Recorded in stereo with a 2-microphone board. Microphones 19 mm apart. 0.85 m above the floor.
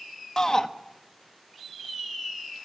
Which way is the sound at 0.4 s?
35° left (ahead or behind).